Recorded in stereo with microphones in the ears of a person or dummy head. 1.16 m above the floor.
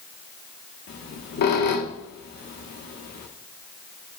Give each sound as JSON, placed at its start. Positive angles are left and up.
{"t": 0.9, "sound": "a squeak", "side_deg": 50, "distance_m": 1.0}